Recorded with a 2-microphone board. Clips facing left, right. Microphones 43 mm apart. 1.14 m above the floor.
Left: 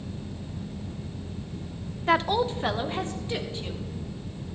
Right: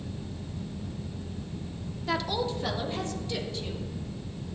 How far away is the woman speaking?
About 0.6 m.